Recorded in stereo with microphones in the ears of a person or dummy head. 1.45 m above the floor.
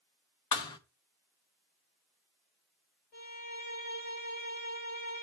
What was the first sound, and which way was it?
A thud, 25° left (ahead or behind).